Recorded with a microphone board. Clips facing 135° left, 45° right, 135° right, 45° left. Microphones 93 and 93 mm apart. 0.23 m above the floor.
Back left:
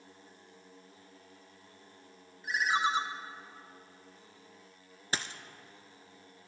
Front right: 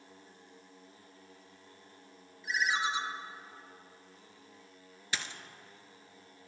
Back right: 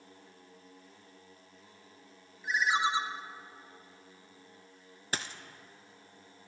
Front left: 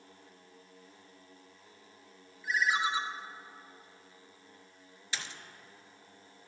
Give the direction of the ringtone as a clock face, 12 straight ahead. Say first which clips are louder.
Back left 2 dB, back right 1 dB; 6 o'clock.